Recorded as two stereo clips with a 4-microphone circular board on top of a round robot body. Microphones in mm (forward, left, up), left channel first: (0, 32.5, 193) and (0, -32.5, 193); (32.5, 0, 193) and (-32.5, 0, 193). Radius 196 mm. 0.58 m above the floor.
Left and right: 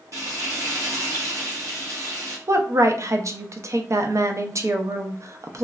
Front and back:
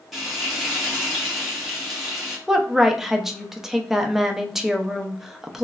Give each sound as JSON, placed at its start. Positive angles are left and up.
{"t": 0.1, "sound": "frying", "azimuth_deg": -90, "distance_m": 1.4}
{"t": 2.5, "sound": "a woman speaking", "azimuth_deg": -95, "distance_m": 0.7}